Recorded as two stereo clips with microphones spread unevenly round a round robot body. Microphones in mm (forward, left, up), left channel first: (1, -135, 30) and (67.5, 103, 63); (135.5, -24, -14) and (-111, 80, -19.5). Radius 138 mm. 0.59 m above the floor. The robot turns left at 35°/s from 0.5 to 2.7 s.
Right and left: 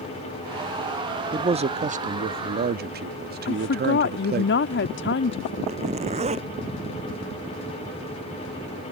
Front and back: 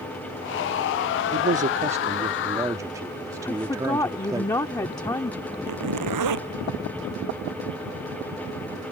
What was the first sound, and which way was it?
A man speaking, 140° left.